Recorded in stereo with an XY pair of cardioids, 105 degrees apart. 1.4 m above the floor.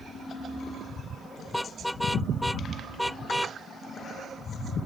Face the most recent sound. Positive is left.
turn(degrees=5)